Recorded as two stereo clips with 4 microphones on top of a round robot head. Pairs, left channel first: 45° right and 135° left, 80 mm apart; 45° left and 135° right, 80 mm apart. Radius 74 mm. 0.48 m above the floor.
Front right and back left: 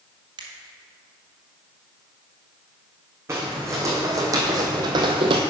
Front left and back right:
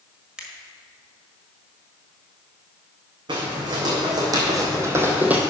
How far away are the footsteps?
About 2.5 m.